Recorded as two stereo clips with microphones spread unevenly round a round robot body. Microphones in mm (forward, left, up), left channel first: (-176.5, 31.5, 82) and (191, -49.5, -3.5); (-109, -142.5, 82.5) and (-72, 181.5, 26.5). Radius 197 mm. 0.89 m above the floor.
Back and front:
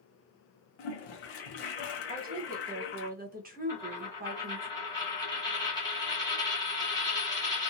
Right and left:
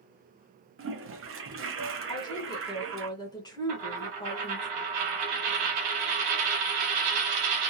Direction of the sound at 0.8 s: 140° left.